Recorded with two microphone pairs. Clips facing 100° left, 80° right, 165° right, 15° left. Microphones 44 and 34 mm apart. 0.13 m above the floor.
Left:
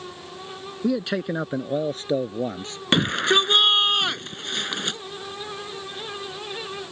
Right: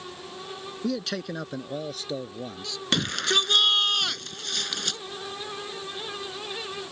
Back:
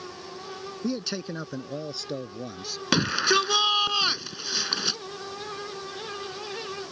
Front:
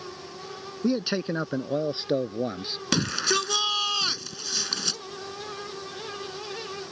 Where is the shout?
135° left.